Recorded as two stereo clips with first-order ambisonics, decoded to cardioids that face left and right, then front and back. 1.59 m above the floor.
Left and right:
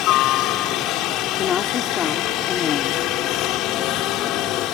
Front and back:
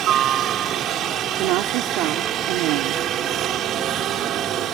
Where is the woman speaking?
155° left.